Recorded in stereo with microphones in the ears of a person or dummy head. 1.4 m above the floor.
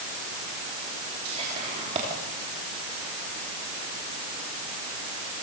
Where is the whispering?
35° right (ahead or behind), 3.5 m.